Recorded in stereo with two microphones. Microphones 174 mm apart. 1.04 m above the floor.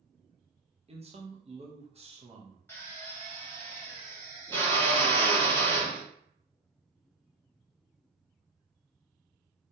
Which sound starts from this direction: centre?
A drill, at 2.7 s.